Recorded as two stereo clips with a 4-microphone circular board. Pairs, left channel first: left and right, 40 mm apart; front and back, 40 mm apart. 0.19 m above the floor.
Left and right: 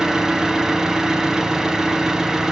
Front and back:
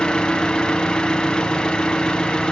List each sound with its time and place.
0.0 s an engine running: 35° right, 1.3 m